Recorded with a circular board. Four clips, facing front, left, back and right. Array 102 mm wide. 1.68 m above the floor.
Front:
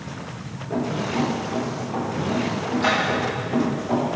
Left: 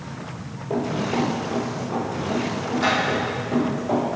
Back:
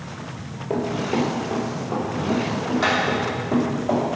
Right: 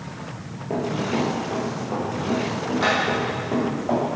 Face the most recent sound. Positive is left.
turn(degrees=-135)